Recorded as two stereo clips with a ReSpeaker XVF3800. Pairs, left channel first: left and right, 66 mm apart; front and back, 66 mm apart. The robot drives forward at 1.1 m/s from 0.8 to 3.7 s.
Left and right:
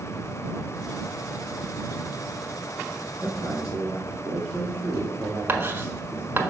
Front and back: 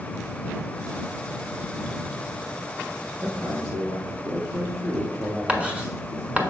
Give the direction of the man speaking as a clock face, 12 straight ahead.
5 o'clock.